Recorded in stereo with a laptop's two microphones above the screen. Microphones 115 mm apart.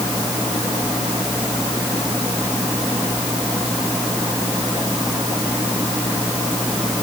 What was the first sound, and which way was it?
Only background noise.